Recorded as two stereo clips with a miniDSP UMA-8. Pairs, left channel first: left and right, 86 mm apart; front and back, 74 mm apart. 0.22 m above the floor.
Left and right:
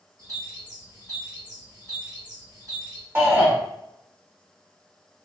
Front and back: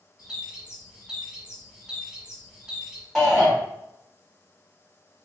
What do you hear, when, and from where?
0.2 s a bird: 105° right, 1.3 m
3.1 s a shout: 75° right, 1.6 m